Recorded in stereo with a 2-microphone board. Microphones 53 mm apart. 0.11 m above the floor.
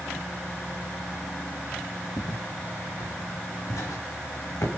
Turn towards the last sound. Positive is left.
turn(degrees=80)